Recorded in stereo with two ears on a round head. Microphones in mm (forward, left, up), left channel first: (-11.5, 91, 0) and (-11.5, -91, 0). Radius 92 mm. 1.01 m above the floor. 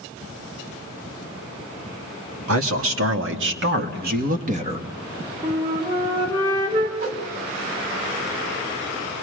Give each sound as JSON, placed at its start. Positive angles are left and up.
{"t": 2.5, "sound": "a man speaking", "side_deg": -75, "distance_m": 2.0}
{"t": 5.4, "sound": "a flute", "side_deg": -25, "distance_m": 2.5}
{"t": 7.0, "sound": "a whoosh", "side_deg": -45, "distance_m": 2.5}